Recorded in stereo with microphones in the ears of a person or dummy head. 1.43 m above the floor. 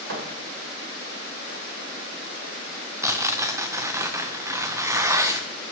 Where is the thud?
70° right (ahead or behind), 2.5 m.